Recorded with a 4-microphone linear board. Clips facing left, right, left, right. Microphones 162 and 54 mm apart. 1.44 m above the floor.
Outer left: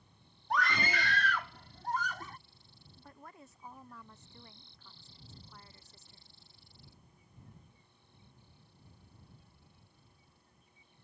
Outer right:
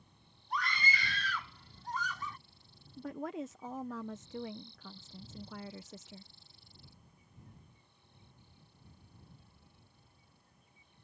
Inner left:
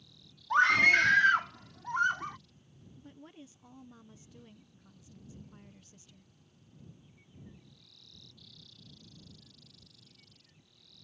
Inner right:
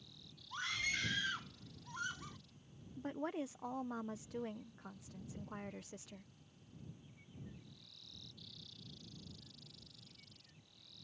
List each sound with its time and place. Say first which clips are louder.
0.5 s a scream: outer left 5 dB, inner left 18 dB; 70° left (ahead or behind); by 2.4 s 45° left (ahead or behind)
3.0 s a woman speaking: outer right 15 dB, inner right 11 dB; 75° right (ahead or behind)